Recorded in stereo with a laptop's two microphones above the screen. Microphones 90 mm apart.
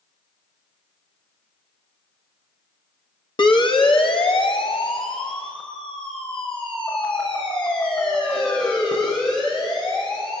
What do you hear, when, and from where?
3.4 s a siren: 60° left (ahead or behind), 2.5 m; by 10.4 s 70° left (ahead or behind), 12.5 m